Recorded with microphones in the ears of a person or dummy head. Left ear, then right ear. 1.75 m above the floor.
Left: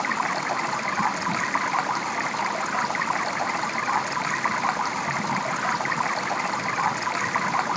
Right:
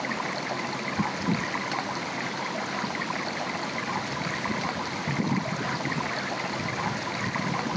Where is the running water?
40° left (ahead or behind).